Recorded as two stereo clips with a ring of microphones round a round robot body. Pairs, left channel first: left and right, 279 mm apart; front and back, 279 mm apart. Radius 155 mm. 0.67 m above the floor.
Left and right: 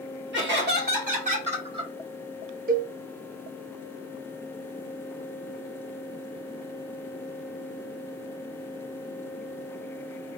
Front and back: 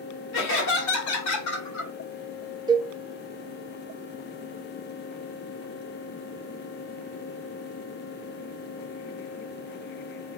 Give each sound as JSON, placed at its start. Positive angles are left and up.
{"t": 0.3, "sound": "laughter", "azimuth_deg": -45, "distance_m": 2.0}
{"t": 2.7, "sound": "a cowbell", "azimuth_deg": -115, "distance_m": 0.5}